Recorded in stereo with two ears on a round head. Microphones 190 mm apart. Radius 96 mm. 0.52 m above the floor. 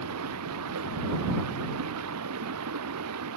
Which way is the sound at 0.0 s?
75° right (ahead or behind).